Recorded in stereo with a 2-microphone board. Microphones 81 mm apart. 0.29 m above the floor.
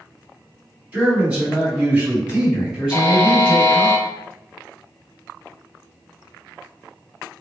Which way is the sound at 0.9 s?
15° right (ahead or behind).